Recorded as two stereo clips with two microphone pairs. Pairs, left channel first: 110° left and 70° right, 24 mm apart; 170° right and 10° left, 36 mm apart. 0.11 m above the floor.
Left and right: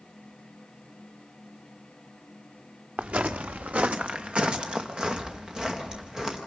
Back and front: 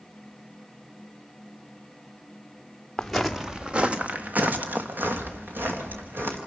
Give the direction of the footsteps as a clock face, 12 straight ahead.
3 o'clock.